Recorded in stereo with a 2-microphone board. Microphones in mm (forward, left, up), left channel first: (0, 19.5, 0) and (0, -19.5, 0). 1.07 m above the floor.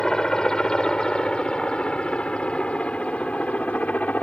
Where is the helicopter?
20° left (ahead or behind); by 4.2 s 40° left (ahead or behind).